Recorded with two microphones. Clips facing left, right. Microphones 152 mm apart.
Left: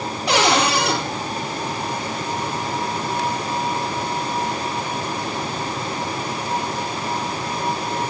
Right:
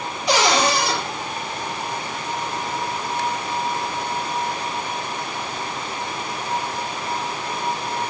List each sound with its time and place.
0.3 s a cupboard door: 65° left (ahead or behind), 3 m